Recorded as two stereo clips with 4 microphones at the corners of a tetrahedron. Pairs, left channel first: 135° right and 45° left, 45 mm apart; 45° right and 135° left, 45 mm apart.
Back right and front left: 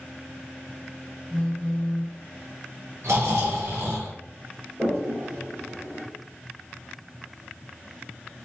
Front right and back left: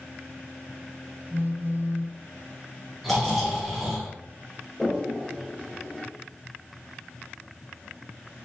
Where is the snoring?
40° left, 2.5 m.